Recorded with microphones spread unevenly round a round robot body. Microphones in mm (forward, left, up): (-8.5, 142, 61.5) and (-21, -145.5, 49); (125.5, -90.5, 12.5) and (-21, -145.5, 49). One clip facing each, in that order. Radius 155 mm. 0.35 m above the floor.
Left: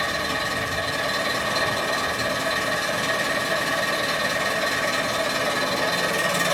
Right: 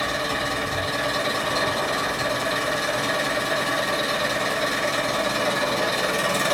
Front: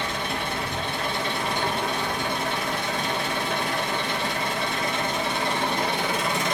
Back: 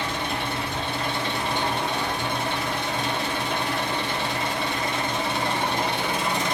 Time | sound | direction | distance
0.0 | an engine running | 140° left | 1.4 m